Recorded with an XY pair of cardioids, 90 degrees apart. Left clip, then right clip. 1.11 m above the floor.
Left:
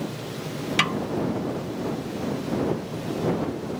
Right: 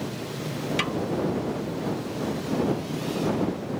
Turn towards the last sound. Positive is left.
turn(degrees=45)